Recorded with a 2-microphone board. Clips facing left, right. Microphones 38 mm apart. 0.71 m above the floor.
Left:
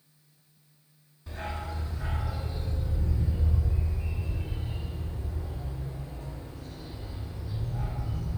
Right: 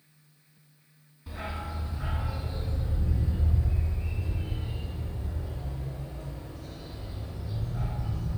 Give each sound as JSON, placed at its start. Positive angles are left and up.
{"t": 1.3, "sound": "a dog barking", "side_deg": -10, "distance_m": 1.5}